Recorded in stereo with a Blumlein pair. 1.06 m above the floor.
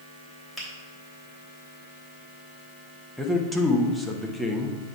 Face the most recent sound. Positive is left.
turn(degrees=0)